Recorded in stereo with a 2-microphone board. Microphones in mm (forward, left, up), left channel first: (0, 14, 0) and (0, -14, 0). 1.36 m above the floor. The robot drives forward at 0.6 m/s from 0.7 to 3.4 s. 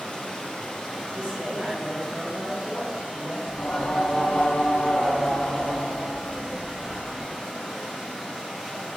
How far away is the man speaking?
About 1.3 m.